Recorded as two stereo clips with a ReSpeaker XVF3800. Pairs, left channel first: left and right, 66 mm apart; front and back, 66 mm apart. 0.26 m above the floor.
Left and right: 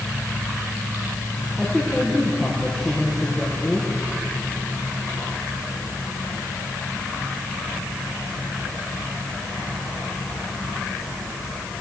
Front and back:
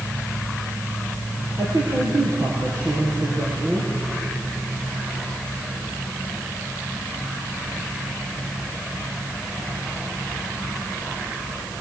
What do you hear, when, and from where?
1.6 s a woman speaking: straight behind, 5.5 m; by 3.9 s 170° left, 8.5 m